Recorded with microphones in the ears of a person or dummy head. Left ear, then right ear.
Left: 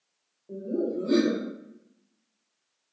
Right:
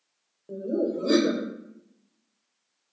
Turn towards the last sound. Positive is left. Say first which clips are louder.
# right 2 dB
turn(degrees=-85)